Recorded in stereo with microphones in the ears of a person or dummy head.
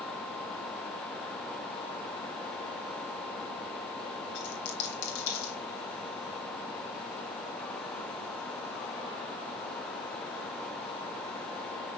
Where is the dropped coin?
65° left (ahead or behind), 4 m.